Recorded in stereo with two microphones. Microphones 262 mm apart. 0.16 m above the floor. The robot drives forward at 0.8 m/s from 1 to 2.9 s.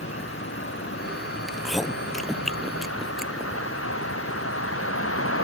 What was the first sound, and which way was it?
A vehicle, 50° left (ahead or behind).